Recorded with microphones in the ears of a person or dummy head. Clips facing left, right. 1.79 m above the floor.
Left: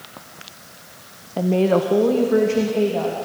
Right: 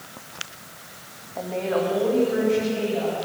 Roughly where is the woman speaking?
Left.